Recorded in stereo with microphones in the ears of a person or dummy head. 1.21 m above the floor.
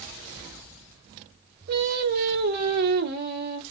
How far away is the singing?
About 1.1 m.